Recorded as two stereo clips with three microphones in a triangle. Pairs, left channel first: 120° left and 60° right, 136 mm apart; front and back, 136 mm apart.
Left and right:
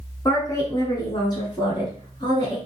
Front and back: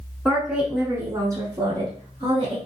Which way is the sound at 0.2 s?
85° left.